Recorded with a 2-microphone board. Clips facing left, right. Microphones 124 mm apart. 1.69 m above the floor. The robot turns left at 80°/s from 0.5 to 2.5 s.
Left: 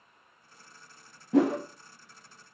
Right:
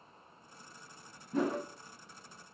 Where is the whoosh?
90° left, 0.5 m; by 1.6 s 65° left (ahead or behind), 0.5 m.